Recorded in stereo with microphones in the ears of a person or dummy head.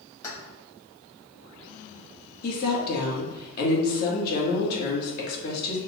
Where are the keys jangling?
20° left (ahead or behind), 1.4 m.